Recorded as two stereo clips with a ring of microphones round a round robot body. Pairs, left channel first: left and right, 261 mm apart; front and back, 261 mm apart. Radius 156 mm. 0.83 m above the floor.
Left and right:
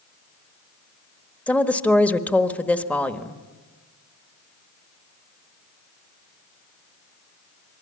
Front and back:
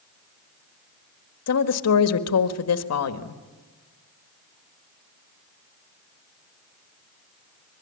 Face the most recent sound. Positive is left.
turn(degrees=5)